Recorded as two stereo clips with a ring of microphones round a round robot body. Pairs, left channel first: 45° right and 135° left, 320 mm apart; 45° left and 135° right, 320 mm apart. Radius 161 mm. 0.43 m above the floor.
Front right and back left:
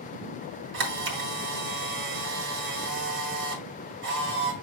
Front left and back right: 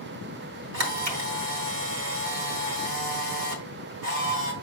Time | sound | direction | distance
0.7 | a camera shutter | 175° right | 1.8 m